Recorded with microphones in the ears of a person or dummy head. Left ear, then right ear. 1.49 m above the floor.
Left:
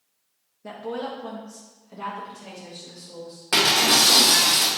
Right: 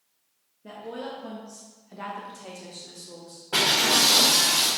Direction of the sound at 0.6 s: 40° left (ahead or behind).